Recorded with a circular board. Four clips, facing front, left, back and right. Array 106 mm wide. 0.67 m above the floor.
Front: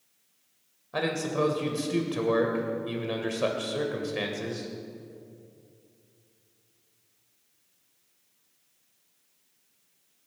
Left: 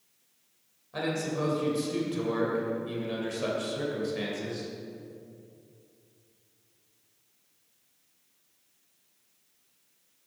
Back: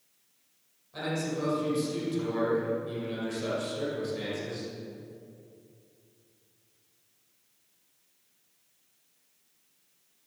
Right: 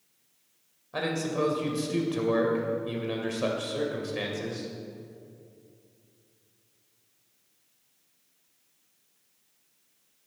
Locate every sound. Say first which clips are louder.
0.9 s a man speaking: right 2 dB, front 4 dB; 25° right, 2.5 m